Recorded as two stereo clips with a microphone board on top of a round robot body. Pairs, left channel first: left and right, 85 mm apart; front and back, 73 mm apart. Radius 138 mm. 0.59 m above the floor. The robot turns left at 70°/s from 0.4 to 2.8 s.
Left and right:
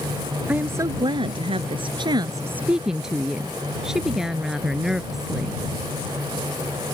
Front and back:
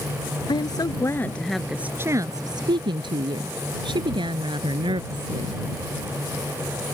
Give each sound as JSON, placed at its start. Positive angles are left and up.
{"t": 0.5, "sound": "a woman speaking", "azimuth_deg": -15}